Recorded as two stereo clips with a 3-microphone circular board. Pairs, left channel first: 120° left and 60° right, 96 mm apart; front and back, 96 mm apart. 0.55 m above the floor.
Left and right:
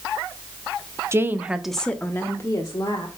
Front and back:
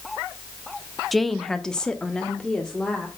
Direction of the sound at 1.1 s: 85° right.